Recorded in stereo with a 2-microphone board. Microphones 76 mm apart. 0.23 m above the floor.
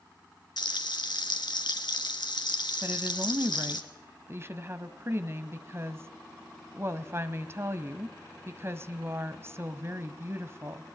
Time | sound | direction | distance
0.6 | frying | 70° left (ahead or behind) | 1.8 m
2.8 | a woman speaking | 35° right (ahead or behind) | 1.3 m